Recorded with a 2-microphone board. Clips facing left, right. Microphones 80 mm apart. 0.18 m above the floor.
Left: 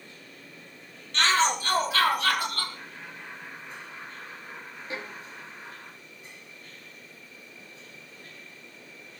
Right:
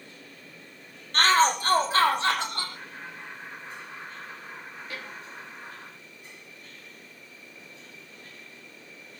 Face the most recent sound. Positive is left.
turn(degrees=25)  # may be behind; listen again after turning